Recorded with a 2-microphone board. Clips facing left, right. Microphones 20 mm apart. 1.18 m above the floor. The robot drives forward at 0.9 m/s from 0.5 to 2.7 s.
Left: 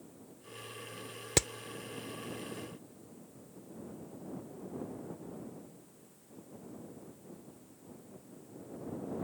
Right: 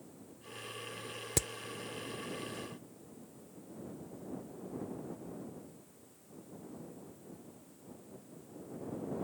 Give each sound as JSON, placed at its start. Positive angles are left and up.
{"t": 1.4, "sound": "hammering", "side_deg": 40}